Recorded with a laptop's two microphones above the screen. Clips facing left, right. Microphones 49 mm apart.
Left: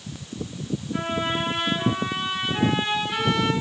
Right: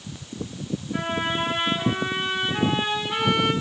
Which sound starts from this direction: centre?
A trumpet, at 0.9 s.